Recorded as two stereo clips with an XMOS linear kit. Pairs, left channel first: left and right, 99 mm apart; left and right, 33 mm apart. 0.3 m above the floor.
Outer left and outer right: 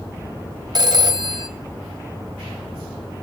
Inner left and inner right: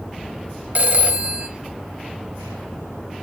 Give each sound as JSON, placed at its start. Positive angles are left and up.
{"t": 0.8, "sound": "a phone ringing", "side_deg": -45, "distance_m": 1.0}